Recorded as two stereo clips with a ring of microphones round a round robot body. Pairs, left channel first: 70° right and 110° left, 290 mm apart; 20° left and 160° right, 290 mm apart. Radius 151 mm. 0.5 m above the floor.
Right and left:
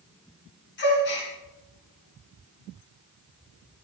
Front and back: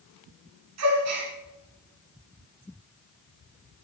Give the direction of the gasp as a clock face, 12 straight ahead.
4 o'clock.